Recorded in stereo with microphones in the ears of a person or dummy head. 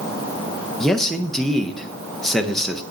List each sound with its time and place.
0.8 s a man speaking: 5° left (ahead or behind), 0.6 m